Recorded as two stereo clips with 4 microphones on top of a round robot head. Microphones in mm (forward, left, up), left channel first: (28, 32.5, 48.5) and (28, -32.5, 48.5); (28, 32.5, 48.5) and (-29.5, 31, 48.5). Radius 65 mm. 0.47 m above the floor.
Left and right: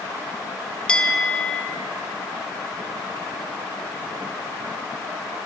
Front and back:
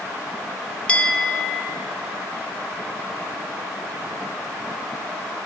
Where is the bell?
35° left, 0.6 m.